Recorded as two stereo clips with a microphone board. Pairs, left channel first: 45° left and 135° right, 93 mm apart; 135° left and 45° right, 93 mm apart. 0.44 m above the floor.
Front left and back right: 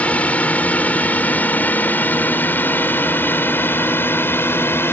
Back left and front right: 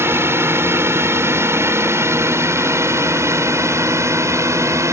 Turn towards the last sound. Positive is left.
turn(degrees=-5)